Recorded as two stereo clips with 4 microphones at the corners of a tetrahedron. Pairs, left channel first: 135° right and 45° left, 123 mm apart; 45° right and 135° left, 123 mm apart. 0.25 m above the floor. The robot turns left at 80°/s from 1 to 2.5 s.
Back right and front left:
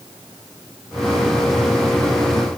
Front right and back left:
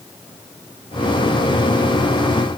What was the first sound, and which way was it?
Only background noise.